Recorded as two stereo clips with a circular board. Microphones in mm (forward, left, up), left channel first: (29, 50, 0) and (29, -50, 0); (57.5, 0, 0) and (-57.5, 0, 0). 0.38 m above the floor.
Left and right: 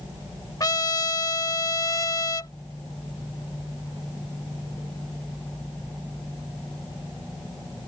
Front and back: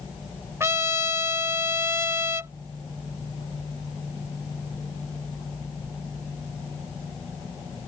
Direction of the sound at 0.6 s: 125° left.